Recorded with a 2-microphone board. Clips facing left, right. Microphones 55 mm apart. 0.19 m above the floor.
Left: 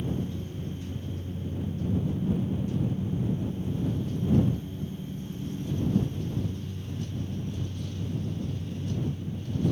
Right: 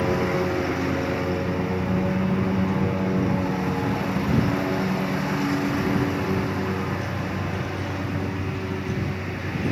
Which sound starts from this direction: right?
A lawn mower, at 0.0 s.